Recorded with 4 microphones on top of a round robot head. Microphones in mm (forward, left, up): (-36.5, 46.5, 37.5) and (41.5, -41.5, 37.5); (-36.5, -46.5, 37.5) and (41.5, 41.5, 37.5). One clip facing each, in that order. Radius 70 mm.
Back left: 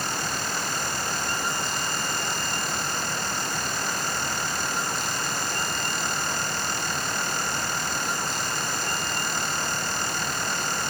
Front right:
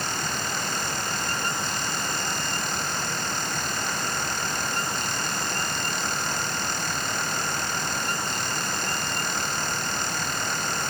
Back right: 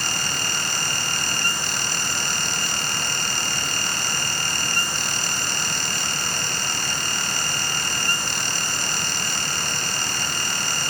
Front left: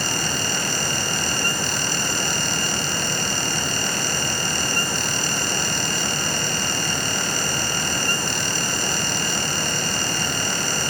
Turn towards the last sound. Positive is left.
No sound to turn to.